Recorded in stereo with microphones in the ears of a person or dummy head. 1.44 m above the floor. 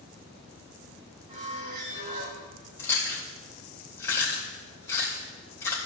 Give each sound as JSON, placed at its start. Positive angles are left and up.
{"t": 1.3, "sound": "a squeak", "side_deg": -40, "distance_m": 1.7}
{"t": 2.8, "sound": "chewing", "side_deg": 15, "distance_m": 3.0}